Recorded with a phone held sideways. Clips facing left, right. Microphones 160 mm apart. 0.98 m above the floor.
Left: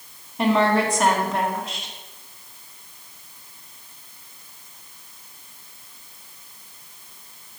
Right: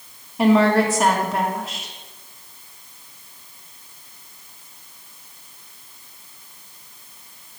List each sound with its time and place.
0.4 s a woman speaking: 5° right (ahead or behind), 1.4 m